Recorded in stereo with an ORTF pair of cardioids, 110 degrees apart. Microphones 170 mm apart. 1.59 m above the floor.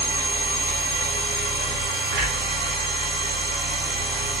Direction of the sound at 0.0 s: 70° right.